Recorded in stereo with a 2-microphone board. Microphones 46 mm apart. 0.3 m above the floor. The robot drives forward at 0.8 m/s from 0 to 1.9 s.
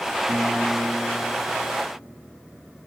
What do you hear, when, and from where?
0.3 s a guitar: 60° right (ahead or behind), 2 m; by 1.9 s 70° right (ahead or behind), 1.8 m